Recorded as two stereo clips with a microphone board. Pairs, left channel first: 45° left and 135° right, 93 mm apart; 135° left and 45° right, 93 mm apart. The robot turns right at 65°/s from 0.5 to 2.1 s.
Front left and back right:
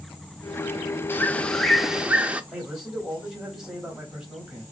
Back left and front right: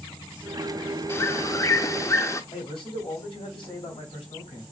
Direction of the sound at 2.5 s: 140° left.